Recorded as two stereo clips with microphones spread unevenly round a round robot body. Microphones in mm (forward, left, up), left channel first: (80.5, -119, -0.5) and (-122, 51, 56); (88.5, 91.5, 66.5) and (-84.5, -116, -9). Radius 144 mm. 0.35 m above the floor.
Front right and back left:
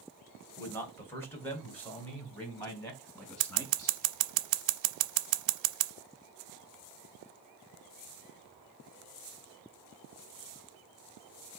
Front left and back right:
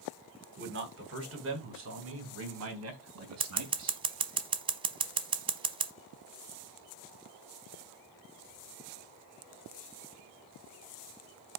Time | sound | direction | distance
0.6 | a man speaking | 110° right | 3 m
3.4 | scissors | 160° left | 0.8 m